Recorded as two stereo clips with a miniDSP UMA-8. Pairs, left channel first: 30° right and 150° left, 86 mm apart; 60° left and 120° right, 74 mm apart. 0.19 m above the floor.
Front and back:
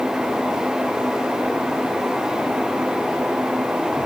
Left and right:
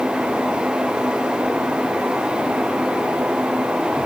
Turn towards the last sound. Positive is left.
No sound to turn to.